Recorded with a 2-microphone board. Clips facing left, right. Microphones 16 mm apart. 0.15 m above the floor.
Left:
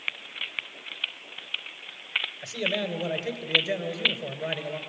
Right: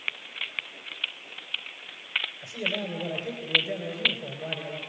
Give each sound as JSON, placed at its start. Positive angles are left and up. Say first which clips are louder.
{"t": 2.4, "sound": "a man speaking", "louder": "left 2 dB", "side_deg": 50, "distance_m": 3.0}